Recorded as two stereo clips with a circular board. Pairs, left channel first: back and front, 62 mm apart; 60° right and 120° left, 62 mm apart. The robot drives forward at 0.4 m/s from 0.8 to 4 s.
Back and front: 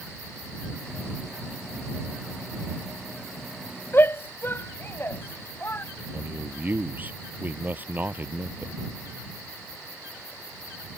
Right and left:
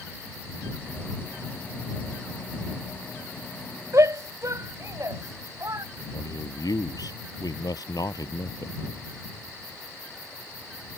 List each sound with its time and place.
3.9 s a shout: 135° left
6.1 s a man speaking: 60° right